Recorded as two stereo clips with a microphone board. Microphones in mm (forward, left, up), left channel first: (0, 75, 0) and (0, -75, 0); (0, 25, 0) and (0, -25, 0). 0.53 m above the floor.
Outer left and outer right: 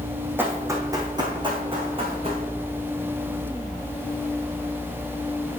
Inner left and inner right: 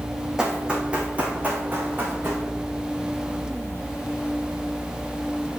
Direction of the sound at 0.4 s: 10° right (ahead or behind).